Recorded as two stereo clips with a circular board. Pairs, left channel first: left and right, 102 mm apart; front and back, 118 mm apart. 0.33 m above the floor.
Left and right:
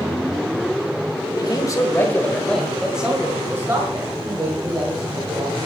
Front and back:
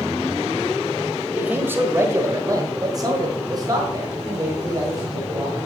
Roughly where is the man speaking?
Left.